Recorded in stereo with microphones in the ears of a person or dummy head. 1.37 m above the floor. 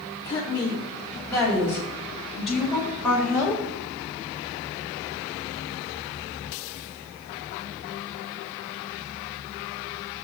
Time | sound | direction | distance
0.2 | a woman speaking | 20° left (ahead or behind) | 4 m